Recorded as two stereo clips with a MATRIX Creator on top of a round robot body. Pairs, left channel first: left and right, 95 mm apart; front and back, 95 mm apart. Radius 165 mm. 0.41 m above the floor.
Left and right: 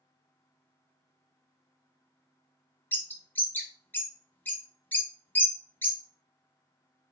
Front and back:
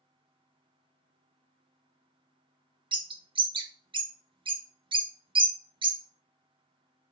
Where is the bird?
160° left, 0.6 m.